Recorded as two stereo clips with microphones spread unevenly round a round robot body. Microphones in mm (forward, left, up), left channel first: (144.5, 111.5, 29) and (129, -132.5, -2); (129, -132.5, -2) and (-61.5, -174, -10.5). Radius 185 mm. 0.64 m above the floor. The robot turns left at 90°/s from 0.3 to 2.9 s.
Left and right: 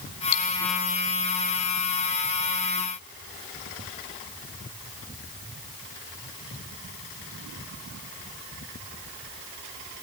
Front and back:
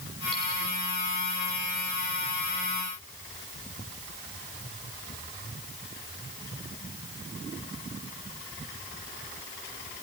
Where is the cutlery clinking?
105° left, 1.6 m; by 0.4 s 90° left, 1.6 m.